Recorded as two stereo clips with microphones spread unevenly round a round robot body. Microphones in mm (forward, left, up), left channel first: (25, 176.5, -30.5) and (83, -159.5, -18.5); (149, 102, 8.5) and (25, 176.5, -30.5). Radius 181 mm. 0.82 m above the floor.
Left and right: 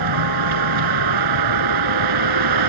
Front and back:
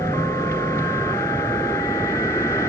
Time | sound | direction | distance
0.0 | a vehicle | 110° right | ?